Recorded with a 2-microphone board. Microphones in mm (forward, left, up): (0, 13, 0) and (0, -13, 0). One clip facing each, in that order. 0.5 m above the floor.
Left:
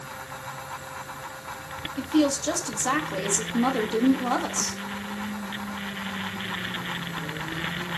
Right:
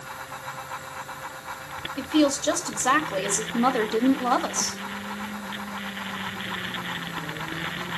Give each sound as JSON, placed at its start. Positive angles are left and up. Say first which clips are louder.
{"t": 2.0, "sound": "a woman speaking", "louder": "right 1 dB", "side_deg": -25, "distance_m": 1.3}